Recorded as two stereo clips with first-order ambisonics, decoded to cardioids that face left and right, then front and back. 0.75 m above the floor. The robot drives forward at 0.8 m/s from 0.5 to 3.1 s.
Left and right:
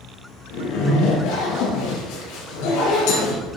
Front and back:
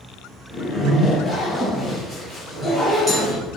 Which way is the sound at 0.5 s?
80° left.